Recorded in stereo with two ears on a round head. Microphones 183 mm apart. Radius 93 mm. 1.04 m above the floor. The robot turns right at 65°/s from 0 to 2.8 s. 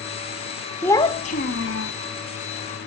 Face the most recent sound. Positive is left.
turn(degrees=135)